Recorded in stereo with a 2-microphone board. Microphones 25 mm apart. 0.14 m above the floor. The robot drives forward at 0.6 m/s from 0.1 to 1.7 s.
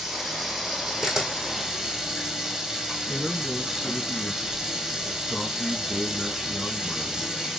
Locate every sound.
0.0 s running water: 10° right (ahead or behind), 2.5 m; by 7.6 s 20° right (ahead or behind), 1.7 m
1.0 s a camera shutter: 20° right (ahead or behind), 2 m; by 3.0 s 25° right (ahead or behind), 1.6 m
3.1 s a man speaking: centre (ahead or behind), 1.1 m